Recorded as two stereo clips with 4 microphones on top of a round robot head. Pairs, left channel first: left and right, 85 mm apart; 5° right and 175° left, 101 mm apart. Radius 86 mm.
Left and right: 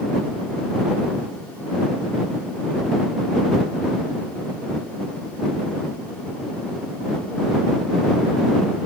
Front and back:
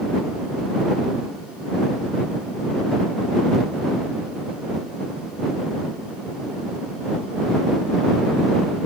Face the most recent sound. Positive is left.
No sound to turn to.